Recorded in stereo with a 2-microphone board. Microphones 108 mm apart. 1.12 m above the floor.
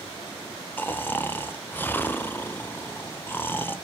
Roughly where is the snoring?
Centre.